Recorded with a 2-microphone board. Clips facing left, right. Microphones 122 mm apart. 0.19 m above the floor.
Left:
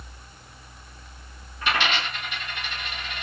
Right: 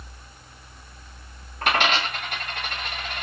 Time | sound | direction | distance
1.6 | a dropped coin | 55° right (ahead or behind) | 5 m